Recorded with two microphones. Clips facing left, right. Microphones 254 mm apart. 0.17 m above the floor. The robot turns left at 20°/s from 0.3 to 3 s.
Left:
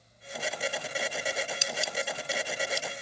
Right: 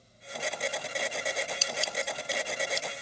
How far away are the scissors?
About 0.9 m.